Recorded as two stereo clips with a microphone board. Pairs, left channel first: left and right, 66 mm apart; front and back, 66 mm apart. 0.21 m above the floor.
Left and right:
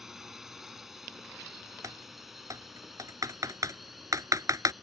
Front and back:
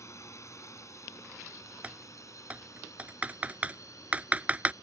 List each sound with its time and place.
0.0 s a drone: 10° right; by 4.8 s straight ahead
1.8 s typing on a keyboard: 115° right